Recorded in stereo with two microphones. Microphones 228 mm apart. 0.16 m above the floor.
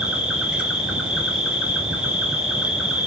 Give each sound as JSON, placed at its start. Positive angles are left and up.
{"t": 0.0, "sound": "an insect", "side_deg": -5, "distance_m": 0.9}